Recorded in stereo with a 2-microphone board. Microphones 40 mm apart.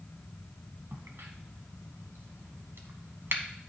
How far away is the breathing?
No breathing in this recording.